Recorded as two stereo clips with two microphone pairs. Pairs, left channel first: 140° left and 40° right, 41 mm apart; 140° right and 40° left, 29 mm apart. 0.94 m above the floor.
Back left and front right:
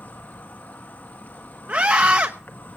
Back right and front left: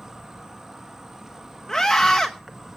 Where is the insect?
110° left, 1.8 m.